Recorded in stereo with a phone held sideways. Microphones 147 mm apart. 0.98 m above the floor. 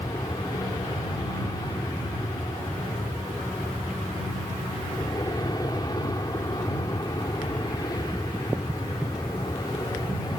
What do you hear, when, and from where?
0.0 s an aircraft: 25° left (ahead or behind)